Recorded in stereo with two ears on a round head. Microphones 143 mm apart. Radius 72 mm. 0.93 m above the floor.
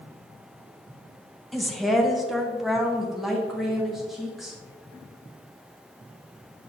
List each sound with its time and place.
1.5 s a woman speaking: centre (ahead or behind), 0.7 m